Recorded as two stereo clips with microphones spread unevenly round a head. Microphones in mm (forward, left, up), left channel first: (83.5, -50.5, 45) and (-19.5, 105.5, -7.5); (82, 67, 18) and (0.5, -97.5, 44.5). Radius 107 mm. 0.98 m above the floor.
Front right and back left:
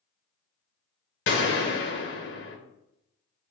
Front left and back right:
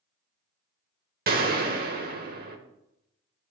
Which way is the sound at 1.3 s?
85° right.